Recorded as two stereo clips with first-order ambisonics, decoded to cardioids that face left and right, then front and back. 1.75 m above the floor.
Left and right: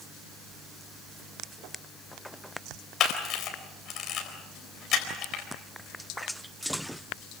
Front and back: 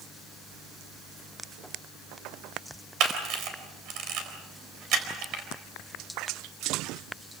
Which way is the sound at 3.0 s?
140° left.